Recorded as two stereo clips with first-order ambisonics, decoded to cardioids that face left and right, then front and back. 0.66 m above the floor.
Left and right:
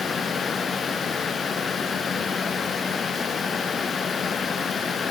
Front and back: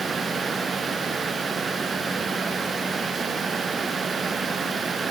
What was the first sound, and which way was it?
Only background noise.